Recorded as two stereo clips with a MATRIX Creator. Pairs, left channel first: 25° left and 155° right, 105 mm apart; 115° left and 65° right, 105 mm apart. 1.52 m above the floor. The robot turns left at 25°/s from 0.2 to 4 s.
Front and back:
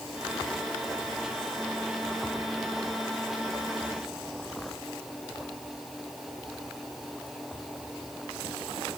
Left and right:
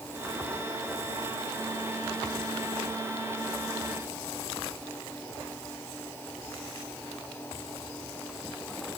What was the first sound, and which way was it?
Only background noise.